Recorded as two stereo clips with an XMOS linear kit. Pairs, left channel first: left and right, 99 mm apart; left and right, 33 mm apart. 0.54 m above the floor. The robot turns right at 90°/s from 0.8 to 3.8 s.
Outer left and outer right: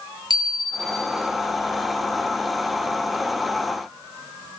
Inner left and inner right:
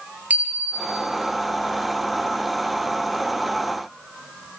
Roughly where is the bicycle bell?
Right.